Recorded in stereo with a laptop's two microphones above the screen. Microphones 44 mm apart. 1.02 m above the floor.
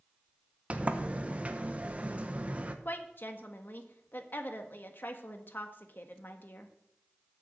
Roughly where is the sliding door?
Right.